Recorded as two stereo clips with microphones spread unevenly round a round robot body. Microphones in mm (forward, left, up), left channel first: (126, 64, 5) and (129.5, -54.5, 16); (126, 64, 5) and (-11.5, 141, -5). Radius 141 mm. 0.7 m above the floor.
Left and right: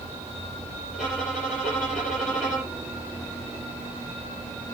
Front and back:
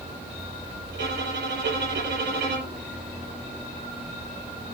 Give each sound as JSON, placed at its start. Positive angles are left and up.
{"t": 0.9, "sound": "a violin", "azimuth_deg": 150, "distance_m": 6.0}